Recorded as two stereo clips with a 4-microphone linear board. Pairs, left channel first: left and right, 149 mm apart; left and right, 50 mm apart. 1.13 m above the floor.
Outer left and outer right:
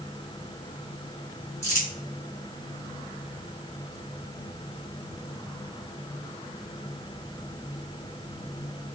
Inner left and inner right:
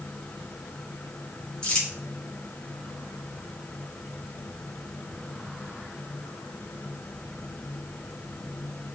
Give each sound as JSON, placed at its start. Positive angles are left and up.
{"t": 1.6, "sound": "crumpling", "side_deg": 15, "distance_m": 2.5}